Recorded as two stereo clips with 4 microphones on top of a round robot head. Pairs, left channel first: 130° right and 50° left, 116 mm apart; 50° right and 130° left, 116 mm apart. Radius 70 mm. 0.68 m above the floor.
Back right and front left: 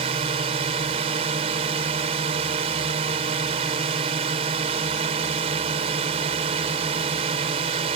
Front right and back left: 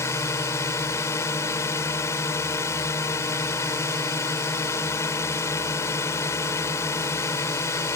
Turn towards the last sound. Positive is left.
turn(degrees=15)